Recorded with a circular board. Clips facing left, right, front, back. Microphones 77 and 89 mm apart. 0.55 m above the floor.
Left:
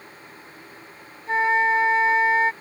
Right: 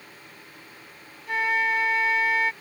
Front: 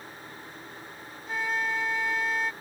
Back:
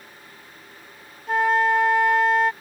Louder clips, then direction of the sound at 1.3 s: Left 5 dB, back 11 dB; 150° left.